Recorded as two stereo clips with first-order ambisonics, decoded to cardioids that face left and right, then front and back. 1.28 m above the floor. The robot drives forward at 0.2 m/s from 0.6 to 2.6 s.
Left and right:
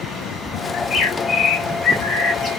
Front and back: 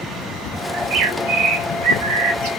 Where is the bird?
140° left, 0.6 m; by 2.5 s 155° left, 0.9 m.